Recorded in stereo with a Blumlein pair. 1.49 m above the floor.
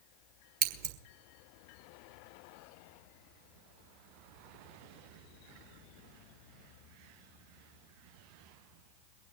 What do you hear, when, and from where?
0.6 s scissors: 45° right, 1.5 m